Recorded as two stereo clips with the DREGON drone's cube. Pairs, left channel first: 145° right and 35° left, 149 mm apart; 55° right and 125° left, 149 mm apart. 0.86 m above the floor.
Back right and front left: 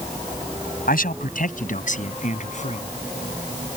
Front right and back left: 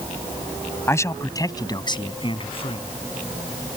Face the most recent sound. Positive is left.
turn(degrees=-105)